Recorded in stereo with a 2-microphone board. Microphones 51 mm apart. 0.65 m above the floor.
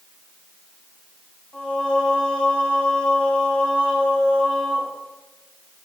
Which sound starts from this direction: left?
Singing, at 1.5 s.